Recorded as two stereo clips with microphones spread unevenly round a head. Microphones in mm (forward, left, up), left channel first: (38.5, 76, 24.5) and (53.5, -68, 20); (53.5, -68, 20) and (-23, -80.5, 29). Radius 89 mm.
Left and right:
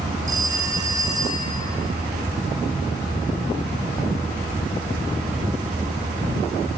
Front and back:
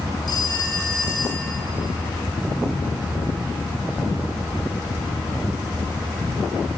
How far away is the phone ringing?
About 5.5 m.